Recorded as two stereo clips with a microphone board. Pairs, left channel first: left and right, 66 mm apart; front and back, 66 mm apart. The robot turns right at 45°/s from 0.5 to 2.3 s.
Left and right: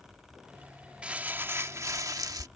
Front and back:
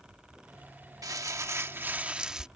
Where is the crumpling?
160° right; by 2.5 s 100° right.